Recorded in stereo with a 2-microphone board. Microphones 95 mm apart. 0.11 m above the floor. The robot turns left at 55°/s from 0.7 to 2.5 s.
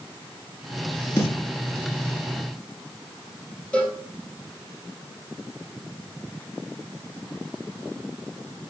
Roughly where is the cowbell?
Centre.